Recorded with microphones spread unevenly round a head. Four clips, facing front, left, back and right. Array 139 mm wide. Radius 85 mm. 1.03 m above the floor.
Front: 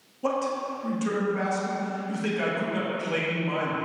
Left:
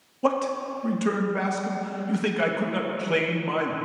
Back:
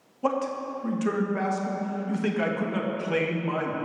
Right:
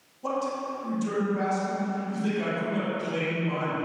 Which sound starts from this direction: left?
A man speaking, at 0.2 s.